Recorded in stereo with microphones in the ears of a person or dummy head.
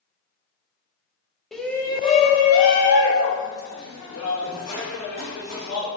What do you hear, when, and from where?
1.5 s a shout: centre (ahead or behind), 0.6 m; by 5.9 s 70° left (ahead or behind), 2 m